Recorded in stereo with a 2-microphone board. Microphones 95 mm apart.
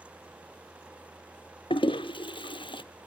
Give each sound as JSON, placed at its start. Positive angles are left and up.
{"t": 1.7, "sound": "a toilet flushing", "side_deg": 60, "distance_m": 0.5}